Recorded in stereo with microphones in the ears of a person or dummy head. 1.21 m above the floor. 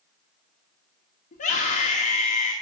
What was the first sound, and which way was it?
A scream, 45° left (ahead or behind).